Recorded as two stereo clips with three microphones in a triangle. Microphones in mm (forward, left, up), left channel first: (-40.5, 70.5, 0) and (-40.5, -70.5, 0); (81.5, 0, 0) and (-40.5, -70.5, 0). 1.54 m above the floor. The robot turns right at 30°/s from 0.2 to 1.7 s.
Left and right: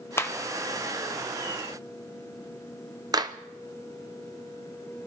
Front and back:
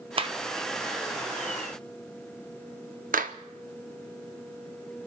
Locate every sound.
0.2 s a clap: 165° left, 0.8 m; by 3.3 s 150° right, 0.8 m